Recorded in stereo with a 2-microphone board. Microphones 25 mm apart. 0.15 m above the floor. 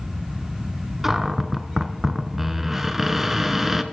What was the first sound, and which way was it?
A cupboard door, 15° right (ahead or behind).